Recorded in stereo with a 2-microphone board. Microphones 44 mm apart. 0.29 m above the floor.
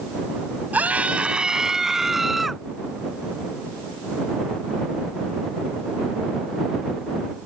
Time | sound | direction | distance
0.7 | a scream | 40° right (ahead or behind) | ?